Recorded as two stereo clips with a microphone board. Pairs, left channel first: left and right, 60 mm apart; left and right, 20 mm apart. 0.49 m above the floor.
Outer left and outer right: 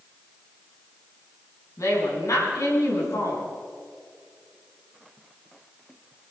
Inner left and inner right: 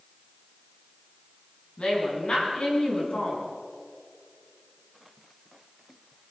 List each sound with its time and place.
1.8 s a woman speaking: 60° left (ahead or behind), 5.5 m